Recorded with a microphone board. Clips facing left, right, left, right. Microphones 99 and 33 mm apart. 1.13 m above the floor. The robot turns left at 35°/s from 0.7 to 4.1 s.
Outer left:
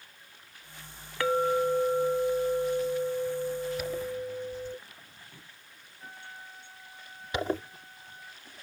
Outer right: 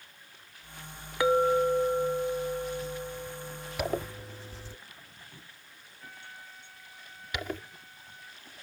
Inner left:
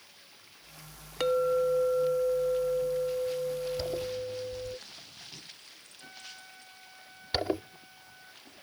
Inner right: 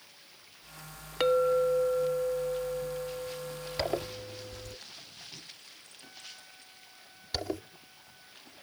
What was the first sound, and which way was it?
A clink, 160° right.